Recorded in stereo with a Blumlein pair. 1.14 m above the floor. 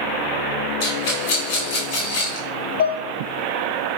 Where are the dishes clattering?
50° left, 1.2 m.